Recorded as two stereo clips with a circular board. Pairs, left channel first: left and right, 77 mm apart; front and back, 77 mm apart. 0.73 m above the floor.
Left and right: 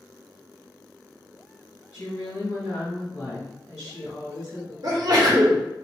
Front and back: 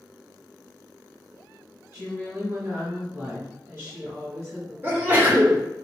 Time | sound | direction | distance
1.9 | a woman speaking | 130° left | 1.8 m
4.8 | a sneeze | 120° right | 1.2 m